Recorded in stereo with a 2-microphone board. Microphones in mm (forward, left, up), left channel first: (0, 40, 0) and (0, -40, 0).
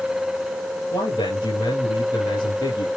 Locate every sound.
0.9 s a man speaking: 70° left (ahead or behind), 4 m